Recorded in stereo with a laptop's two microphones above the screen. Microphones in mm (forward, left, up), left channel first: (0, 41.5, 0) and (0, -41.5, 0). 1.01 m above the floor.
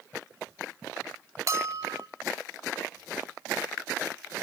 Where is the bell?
40° right (ahead or behind), 0.6 m.